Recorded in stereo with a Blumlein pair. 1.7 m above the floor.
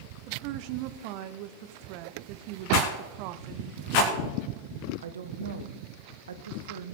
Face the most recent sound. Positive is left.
turn(degrees=-65)